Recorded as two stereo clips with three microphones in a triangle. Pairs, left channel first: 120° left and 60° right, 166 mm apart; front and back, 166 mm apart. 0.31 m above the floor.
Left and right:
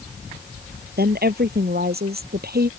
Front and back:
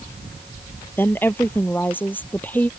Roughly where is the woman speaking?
Right.